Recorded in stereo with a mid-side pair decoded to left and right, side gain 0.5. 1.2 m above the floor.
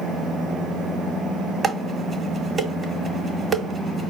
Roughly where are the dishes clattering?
Ahead right.